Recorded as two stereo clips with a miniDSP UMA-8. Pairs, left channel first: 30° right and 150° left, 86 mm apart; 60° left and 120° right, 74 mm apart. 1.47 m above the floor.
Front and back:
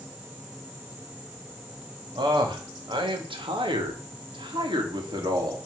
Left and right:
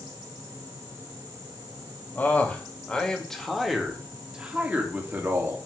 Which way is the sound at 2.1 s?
125° left.